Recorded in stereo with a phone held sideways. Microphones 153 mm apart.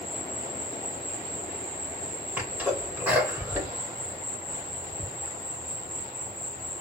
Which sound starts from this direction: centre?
A sneeze, at 2.4 s.